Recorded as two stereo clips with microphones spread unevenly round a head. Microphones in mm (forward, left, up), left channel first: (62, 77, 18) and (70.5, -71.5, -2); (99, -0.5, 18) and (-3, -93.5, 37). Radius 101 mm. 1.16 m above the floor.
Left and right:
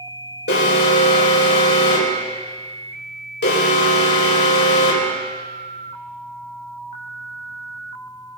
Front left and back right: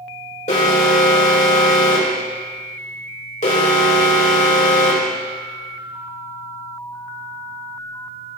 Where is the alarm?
95° left, 4 m.